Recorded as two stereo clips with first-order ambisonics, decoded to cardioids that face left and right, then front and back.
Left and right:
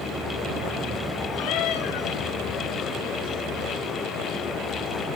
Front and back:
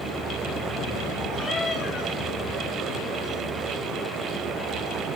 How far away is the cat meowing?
About 1.6 m.